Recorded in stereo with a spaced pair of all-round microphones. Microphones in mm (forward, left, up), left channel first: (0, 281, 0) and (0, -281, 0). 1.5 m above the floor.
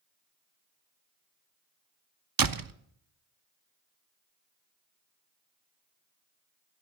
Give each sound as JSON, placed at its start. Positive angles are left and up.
{"t": 2.4, "sound": "a door slam", "side_deg": -40, "distance_m": 0.5}